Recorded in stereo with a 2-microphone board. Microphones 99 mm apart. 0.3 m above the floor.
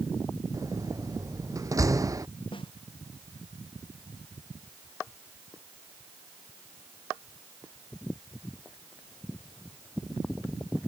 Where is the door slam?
35° right (ahead or behind).